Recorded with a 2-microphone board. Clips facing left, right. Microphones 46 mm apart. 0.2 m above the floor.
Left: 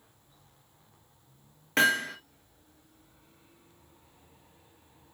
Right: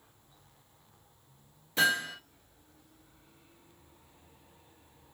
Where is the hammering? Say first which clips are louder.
Left 3 dB; 65° left (ahead or behind), 2.5 m.